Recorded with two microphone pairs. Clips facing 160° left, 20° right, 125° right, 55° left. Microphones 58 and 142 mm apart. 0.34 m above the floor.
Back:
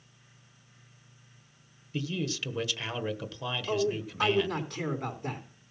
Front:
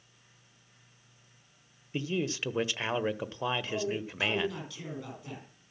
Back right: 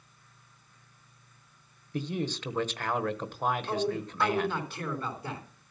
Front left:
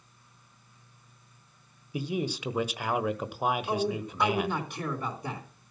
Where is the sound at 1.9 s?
20° right, 1.1 m.